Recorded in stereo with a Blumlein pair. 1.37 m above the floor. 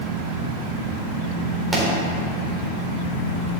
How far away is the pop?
About 4 m.